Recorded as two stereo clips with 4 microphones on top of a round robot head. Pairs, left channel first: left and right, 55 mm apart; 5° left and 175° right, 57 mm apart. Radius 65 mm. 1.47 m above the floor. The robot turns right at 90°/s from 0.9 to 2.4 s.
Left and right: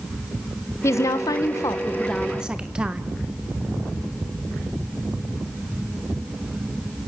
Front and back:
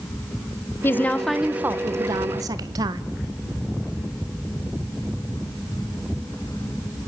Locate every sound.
0.8 s a woman speaking: 55° left, 1.4 m; by 3.0 s 170° right, 1.4 m